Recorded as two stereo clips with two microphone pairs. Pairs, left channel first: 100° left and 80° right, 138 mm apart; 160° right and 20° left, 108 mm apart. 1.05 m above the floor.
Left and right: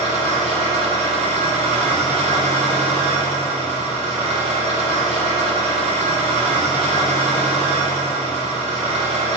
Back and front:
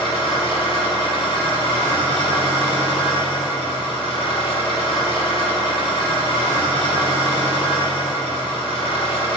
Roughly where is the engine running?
Behind right.